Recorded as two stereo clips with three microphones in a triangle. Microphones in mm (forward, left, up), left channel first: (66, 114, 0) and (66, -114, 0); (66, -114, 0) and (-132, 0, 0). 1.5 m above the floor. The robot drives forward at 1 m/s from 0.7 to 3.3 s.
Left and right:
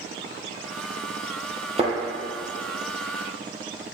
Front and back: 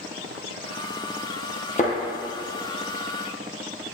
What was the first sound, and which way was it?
A thud, 50° right.